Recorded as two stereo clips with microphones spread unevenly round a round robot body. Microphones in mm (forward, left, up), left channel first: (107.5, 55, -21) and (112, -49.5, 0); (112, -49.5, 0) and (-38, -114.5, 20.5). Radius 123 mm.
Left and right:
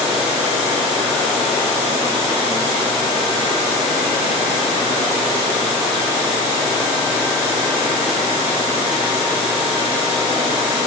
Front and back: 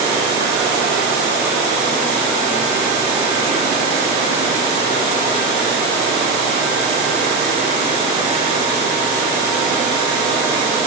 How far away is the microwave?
I don't hear a microwave.